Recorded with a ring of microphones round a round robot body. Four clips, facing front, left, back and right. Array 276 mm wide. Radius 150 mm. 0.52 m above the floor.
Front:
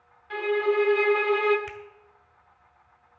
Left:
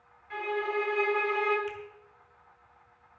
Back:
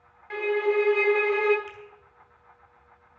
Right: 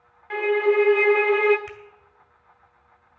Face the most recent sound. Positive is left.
turn(degrees=-50)